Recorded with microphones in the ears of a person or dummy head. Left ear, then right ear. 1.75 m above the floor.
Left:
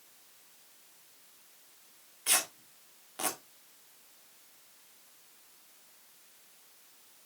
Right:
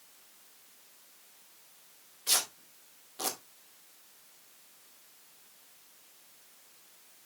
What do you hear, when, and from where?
2.3 s tearing paper: 45° left (ahead or behind), 2 m